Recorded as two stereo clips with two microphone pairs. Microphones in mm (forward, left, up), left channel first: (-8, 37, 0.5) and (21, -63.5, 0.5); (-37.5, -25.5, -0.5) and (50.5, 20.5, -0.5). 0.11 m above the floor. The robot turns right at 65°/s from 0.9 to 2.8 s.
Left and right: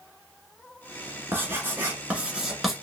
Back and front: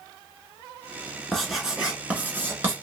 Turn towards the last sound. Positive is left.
turn(degrees=25)